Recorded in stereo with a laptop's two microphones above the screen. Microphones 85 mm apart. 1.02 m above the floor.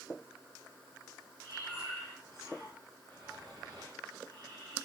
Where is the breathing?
55° right (ahead or behind), 3.5 m.